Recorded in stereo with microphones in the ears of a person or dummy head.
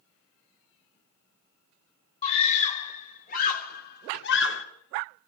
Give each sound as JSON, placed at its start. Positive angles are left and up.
{"t": 2.2, "sound": "a scream", "side_deg": 35, "distance_m": 5.0}